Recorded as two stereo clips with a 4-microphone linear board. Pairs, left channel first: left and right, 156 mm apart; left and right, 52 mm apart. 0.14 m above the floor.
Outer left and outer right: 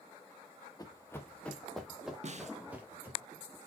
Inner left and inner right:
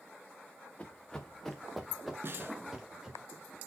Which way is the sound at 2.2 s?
50° right (ahead or behind).